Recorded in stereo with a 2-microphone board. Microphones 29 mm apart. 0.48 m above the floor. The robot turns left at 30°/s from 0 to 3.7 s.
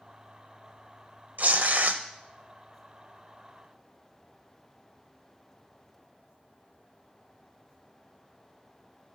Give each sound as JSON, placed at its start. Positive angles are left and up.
{"t": 1.4, "sound": "tearing paper", "side_deg": -70, "distance_m": 0.7}